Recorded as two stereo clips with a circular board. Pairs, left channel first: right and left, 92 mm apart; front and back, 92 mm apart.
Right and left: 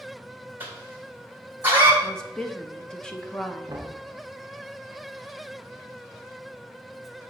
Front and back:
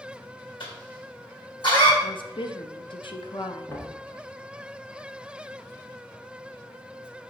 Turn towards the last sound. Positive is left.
turn(degrees=50)